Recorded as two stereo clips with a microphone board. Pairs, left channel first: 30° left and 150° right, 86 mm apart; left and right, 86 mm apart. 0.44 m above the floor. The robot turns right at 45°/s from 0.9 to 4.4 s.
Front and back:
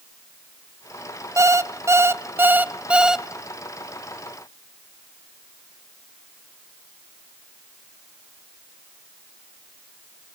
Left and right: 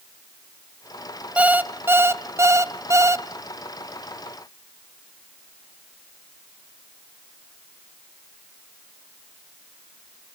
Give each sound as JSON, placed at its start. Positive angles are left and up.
{"t": 1.4, "sound": "an alarm clock", "azimuth_deg": -155, "distance_m": 0.6}